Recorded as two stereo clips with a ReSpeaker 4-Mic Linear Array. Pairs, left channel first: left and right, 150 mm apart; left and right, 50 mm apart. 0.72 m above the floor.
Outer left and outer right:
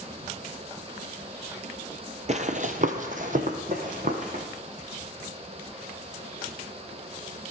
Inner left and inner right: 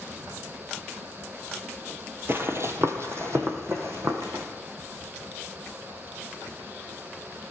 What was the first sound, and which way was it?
Running footsteps, 50° right (ahead or behind).